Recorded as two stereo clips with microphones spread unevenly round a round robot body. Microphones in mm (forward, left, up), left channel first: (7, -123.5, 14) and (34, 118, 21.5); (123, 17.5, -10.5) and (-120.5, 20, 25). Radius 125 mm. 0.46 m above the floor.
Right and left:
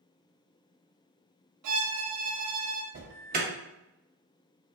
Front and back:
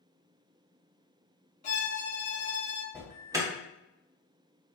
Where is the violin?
60° left, 0.6 m.